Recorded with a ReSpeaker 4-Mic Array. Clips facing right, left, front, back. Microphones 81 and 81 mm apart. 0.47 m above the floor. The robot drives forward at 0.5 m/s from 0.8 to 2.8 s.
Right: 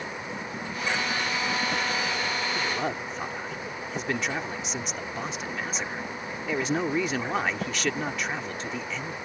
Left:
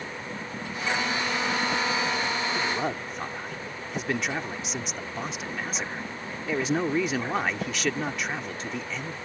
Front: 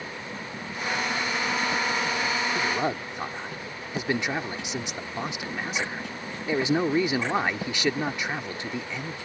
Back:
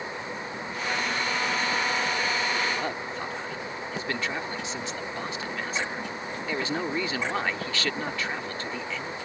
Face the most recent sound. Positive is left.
turn(degrees=0)